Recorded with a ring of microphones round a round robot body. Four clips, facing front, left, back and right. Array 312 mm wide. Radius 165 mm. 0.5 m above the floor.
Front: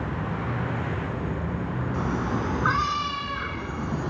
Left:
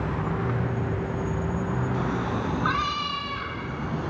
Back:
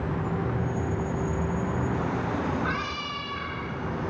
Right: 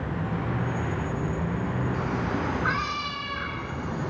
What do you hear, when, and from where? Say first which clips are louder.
1.9 s a cat meowing: left 1 dB, front 1 dB; 20° left, 3 m; by 4.1 s 25° left, 4 m